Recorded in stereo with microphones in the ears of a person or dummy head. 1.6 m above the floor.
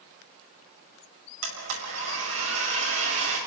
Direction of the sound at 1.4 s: 85° right.